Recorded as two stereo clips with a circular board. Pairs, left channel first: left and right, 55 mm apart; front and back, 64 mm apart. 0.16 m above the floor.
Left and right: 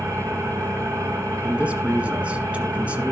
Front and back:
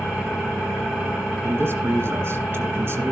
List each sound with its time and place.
0.0 s an engine running: 90° right, 3.5 m
1.4 s a man speaking: 145° right, 1.7 m